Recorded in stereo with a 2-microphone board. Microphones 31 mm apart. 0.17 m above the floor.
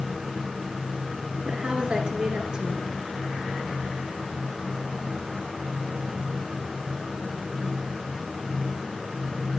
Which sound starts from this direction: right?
A woman speaking, at 1.4 s.